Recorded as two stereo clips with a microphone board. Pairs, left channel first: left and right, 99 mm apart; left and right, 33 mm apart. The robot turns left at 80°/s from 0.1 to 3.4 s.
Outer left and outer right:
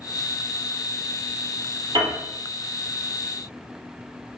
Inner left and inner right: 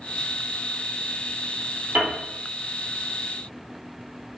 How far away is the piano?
About 1.9 m.